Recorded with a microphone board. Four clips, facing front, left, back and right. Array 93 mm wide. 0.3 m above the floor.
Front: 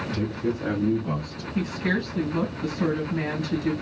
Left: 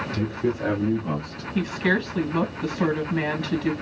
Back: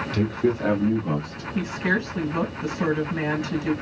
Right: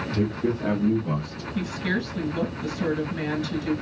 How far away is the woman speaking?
About 2.5 m.